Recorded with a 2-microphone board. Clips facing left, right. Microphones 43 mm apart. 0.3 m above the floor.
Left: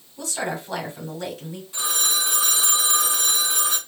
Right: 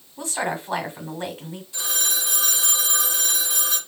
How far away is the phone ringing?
About 1.9 m.